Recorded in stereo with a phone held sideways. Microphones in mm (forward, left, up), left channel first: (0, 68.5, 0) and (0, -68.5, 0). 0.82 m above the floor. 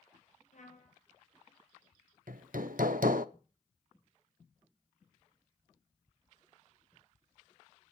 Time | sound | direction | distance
0.5 | a trumpet | 65° left (ahead or behind) | 4.5 m
2.3 | hammering | 90° right | 0.7 m